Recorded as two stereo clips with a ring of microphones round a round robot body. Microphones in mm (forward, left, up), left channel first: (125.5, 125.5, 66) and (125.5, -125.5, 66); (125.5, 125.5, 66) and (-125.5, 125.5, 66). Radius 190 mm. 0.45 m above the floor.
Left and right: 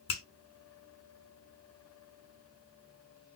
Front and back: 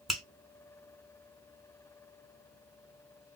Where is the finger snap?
90° left, 1.3 m.